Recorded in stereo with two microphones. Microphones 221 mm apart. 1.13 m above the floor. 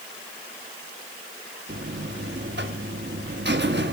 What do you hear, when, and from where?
1.7 s a buzzer: 55° right (ahead or behind), 1.2 m